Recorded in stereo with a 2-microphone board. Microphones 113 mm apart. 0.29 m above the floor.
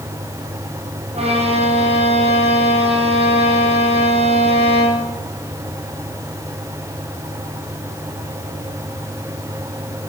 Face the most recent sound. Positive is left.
turn(degrees=-55)  # may be behind; listen again after turning